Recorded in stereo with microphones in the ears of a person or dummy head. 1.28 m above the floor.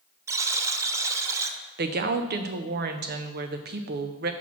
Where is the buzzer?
15° right (ahead or behind), 0.6 m.